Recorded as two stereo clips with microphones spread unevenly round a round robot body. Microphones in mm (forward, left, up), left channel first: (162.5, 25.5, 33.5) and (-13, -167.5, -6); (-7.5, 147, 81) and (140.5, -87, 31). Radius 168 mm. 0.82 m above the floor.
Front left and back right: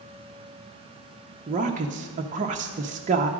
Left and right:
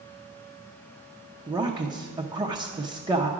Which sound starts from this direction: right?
A woman speaking, at 1.5 s.